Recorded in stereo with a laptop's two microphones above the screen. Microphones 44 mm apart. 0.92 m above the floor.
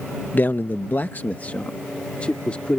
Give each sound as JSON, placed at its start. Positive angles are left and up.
{"t": 0.3, "sound": "a man speaking", "side_deg": 45}